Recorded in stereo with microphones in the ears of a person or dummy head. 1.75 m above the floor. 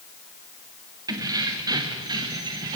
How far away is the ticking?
I don't hear ticking.